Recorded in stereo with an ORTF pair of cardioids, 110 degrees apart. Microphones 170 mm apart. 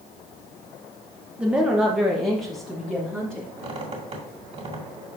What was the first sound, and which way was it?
A woman speaking, 5° right.